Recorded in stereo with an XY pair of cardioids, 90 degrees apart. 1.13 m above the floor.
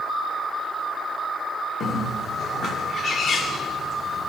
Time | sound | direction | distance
1.8 | a bird | 65° left | 1.5 m